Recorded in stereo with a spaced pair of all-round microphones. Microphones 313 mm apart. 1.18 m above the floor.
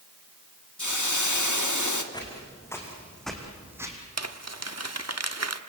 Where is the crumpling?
55° right (ahead or behind), 1.1 m.